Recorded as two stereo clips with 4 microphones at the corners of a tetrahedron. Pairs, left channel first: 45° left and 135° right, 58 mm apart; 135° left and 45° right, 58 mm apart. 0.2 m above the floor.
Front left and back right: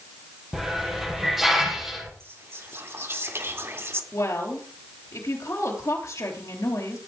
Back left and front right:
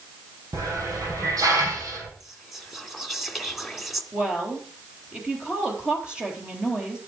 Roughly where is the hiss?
Ahead right.